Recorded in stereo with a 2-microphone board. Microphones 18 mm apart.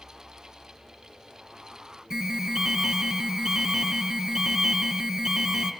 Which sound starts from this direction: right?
An alarm, at 2.1 s.